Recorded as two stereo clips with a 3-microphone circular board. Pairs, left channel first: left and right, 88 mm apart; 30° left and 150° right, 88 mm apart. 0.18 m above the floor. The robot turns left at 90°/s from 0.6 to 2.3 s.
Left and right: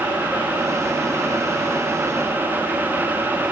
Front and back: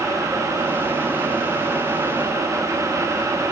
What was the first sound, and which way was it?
Only background noise.